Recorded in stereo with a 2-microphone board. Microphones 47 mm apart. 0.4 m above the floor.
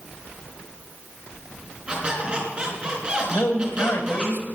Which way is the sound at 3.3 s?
65° left (ahead or behind).